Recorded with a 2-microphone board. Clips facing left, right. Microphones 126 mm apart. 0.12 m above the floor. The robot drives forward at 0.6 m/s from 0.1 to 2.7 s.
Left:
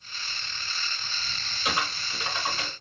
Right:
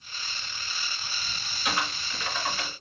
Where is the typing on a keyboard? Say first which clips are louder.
Left 1 dB; 25° left (ahead or behind), 1.6 m; by 2.7 s 20° left (ahead or behind), 1.7 m.